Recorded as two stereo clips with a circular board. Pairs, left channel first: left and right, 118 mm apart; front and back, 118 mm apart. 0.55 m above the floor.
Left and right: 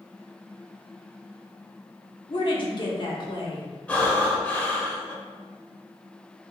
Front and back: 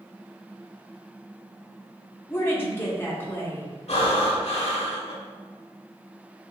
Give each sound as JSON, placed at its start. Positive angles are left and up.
{"t": 2.3, "sound": "a woman speaking", "azimuth_deg": 65, "distance_m": 1.1}
{"t": 3.9, "sound": "breathing", "azimuth_deg": 15, "distance_m": 1.0}